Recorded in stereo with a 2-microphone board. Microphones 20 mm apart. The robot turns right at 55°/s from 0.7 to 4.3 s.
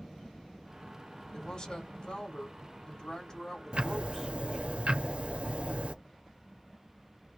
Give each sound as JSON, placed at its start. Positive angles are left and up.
{"t": 1.3, "sound": "a woman speaking", "azimuth_deg": 30, "distance_m": 1.8}
{"t": 3.7, "sound": "ticking", "azimuth_deg": -120, "distance_m": 0.8}